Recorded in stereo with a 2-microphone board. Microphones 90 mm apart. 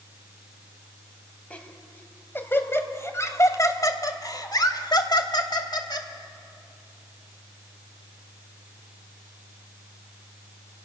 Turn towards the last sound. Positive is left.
turn(degrees=55)  # may be behind; listen again after turning